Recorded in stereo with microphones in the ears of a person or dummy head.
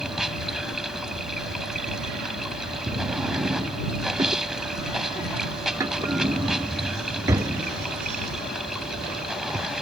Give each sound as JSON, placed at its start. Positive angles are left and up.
{"t": 0.0, "sound": "running water", "side_deg": 0}
{"t": 2.9, "sound": "a drawer", "side_deg": -15}